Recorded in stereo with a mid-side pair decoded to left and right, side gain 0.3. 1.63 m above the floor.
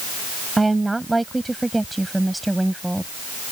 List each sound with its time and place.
0.6 s a woman speaking: 25° right; by 3.1 s 5° right